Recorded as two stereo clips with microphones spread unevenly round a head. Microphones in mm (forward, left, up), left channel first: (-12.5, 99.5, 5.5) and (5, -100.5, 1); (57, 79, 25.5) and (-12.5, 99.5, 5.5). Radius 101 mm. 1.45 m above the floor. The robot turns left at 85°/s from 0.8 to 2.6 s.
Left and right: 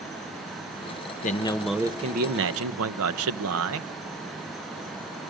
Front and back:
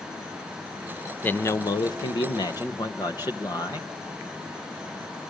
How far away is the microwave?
No microwave in this recording.